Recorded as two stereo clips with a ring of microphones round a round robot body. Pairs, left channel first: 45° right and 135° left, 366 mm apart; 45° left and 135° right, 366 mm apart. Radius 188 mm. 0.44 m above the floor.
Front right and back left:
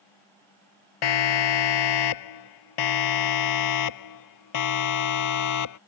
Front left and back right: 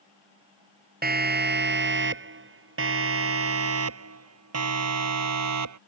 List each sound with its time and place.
1.0 s a siren: 70° right; by 5.8 s 90° right